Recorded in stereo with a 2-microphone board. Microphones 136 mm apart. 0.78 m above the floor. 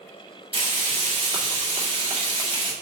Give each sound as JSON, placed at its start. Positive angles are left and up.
{"t": 0.5, "sound": "frying", "side_deg": -40, "distance_m": 2.5}